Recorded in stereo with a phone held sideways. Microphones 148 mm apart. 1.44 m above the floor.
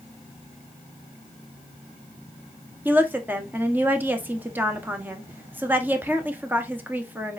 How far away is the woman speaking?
About 0.9 m.